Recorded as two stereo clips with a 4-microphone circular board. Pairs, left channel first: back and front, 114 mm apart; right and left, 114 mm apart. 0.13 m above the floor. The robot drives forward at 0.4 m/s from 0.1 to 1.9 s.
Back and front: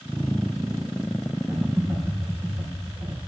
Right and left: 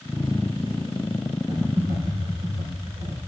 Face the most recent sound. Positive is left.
turn(degrees=80)